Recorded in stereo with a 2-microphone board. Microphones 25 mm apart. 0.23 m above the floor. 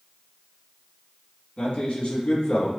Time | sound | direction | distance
1.6 | a man speaking | 50° left (ahead or behind) | 1.8 m